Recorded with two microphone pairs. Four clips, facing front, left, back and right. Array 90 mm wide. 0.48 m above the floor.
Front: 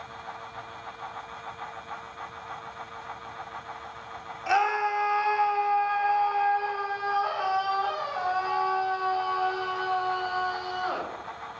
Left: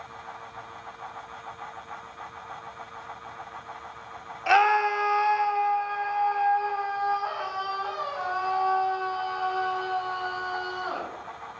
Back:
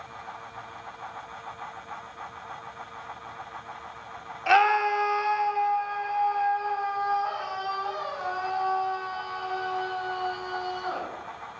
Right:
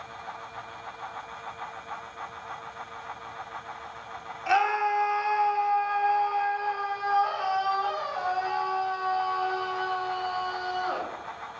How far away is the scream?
About 0.9 m.